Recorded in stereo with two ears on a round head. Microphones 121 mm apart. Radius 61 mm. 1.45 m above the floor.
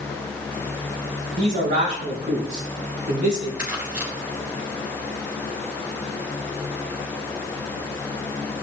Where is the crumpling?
15° right (ahead or behind), 3.5 m.